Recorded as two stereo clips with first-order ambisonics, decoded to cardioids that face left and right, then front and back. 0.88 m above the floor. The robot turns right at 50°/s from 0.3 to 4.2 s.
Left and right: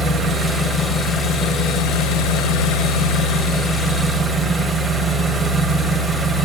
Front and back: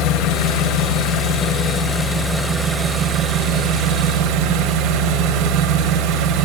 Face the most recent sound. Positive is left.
turn(degrees=175)